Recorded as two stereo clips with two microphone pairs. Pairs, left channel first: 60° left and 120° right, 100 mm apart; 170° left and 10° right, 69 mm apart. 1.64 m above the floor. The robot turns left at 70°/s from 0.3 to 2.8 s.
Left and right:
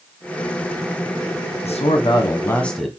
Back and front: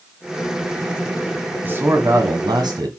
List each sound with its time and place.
1.6 s a man speaking: 55° left, 1.3 m; by 2.9 s 25° right, 1.3 m